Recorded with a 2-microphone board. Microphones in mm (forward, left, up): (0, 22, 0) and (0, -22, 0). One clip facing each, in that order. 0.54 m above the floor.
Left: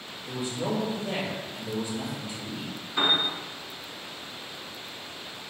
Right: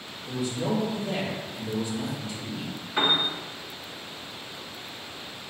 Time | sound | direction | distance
0.3 | a man speaking | 20° left (ahead or behind) | 1.4 m
3.0 | a piano | 50° right (ahead or behind) | 1.0 m